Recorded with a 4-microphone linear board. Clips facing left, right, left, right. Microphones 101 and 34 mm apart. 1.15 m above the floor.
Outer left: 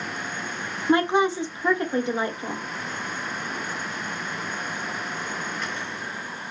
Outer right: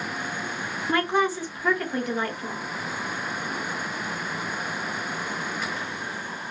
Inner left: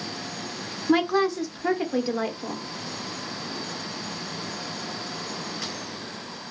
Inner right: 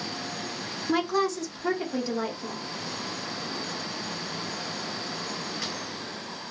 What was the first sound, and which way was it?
A woman speaking, 25° left (ahead or behind).